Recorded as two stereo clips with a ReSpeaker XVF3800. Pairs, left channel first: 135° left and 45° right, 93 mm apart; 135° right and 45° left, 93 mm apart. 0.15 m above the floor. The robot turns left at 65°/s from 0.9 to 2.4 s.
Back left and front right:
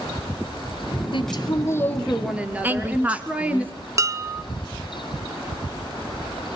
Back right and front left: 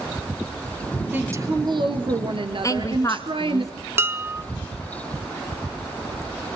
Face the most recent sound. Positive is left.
turn(degrees=-5)